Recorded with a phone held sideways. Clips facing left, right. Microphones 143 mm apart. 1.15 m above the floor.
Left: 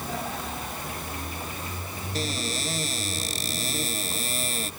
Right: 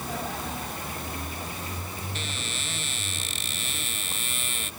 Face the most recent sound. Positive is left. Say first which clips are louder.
# left 6 dB
turn(degrees=35)  # may be behind; listen again after turning